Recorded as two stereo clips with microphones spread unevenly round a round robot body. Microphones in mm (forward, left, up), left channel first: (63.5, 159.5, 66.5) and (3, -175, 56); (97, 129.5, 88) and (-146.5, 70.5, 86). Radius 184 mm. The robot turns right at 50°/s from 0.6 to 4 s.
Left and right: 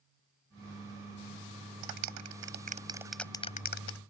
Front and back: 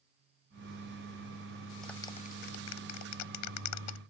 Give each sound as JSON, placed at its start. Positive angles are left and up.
{"t": 1.8, "sound": "a clap", "azimuth_deg": -75}